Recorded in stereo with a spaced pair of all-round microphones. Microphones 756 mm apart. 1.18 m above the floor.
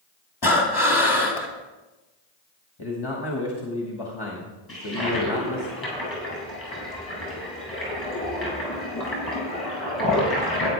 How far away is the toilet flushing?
About 6 m.